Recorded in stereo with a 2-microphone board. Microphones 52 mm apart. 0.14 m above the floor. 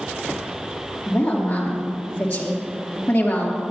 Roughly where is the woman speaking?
Left.